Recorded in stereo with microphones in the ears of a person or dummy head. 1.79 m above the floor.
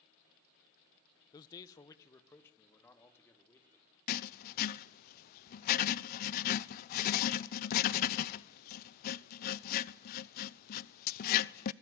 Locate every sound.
1.3 s a man speaking: 25° left (ahead or behind), 0.8 m; by 3.9 s 15° left (ahead or behind), 4.5 m
4.1 s writing: 50° left (ahead or behind), 0.7 m